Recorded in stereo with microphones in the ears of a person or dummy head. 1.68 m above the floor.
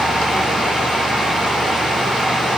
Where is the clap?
No clap in this recording.